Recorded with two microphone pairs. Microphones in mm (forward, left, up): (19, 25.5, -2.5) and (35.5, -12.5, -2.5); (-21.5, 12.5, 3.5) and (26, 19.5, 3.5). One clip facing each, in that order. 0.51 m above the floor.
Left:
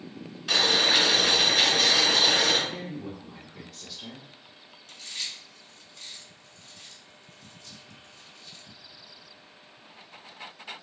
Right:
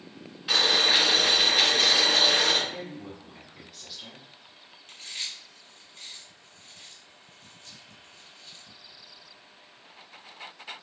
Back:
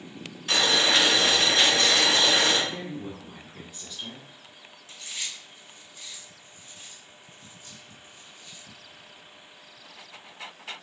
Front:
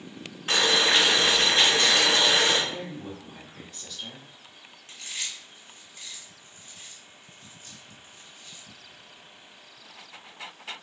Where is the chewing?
15° right, 1.3 m.